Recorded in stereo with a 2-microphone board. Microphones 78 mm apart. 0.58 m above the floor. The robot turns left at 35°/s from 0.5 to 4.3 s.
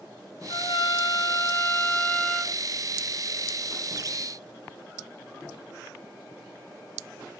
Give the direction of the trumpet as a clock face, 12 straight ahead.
9 o'clock.